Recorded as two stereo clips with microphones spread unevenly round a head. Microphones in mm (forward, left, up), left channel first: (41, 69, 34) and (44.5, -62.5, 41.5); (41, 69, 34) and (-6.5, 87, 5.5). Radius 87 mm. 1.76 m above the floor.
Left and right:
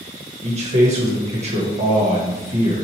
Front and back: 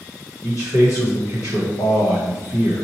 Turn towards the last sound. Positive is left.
turn(degrees=-50)